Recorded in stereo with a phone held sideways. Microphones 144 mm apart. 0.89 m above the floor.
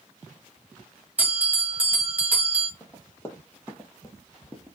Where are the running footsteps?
15° left (ahead or behind), 1.3 m.